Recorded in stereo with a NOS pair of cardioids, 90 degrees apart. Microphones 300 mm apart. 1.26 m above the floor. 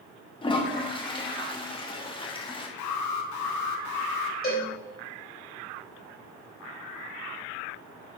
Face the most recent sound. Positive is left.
turn(degrees=30)